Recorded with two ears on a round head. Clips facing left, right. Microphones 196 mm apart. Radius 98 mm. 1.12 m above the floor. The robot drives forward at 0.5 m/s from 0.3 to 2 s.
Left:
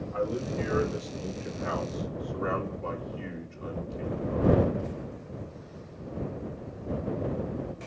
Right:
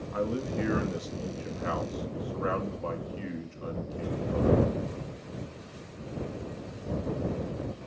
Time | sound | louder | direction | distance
0.1 | a man speaking | even | 65° right (ahead or behind) | 2.0 m